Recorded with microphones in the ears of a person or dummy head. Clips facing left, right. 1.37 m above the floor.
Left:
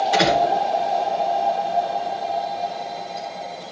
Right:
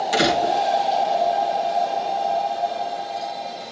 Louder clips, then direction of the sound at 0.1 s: Even; 35° right (ahead or behind).